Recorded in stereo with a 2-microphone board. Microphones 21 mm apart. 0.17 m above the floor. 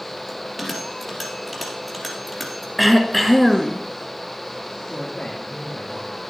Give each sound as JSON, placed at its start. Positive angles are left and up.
{"t": 0.3, "sound": "a bell", "side_deg": 0, "distance_m": 2.5}
{"t": 2.8, "sound": "throat clearing", "side_deg": 0, "distance_m": 0.9}
{"t": 4.9, "sound": "a woman speaking", "side_deg": 60, "distance_m": 4.0}